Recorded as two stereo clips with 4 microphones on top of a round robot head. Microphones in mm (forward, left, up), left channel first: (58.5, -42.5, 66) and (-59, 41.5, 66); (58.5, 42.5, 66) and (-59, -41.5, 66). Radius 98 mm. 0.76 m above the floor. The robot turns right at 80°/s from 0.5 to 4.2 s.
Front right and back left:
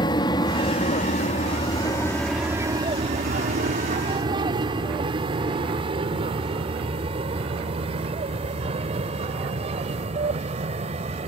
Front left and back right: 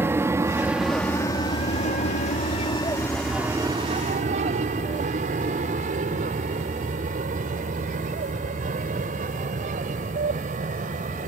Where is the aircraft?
80° right; by 11.3 s 170° right.